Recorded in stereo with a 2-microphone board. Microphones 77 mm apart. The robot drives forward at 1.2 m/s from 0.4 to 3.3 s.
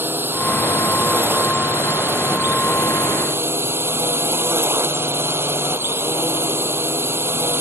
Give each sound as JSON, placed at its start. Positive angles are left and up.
{"t": 0.0, "sound": "a drone", "side_deg": -30}